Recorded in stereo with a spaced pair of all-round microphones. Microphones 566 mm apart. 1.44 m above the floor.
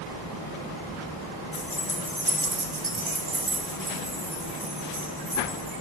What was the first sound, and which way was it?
Keys jangling, 45° left (ahead or behind).